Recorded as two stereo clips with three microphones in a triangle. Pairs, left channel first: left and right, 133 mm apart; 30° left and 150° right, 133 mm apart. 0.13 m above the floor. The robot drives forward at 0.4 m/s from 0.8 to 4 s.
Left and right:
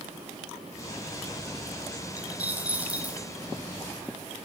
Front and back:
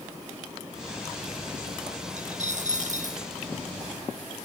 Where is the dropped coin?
165° right, 1.5 m; by 3.2 s 170° right, 1.9 m.